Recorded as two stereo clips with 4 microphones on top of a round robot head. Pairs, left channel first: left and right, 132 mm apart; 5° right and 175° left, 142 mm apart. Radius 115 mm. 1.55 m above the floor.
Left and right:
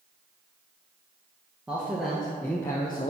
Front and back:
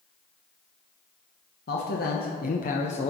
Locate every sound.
1.7 s a man speaking: 5° right, 1.2 m; by 3.1 s 35° left, 0.5 m